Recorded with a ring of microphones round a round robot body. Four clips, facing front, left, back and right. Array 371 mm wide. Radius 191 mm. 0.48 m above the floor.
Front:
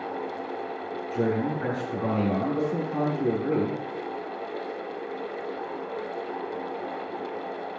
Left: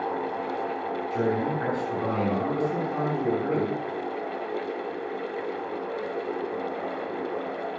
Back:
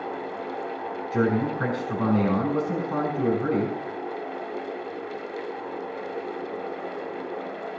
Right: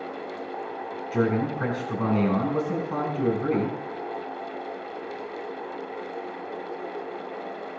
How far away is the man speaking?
About 9 m.